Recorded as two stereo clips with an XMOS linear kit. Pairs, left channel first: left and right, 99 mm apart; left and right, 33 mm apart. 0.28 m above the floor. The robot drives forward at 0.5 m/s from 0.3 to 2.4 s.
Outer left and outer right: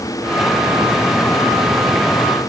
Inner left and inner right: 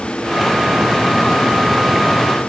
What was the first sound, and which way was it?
Only background noise.